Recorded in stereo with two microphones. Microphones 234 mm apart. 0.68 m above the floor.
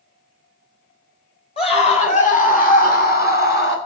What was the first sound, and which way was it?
A scream, 25° left (ahead or behind).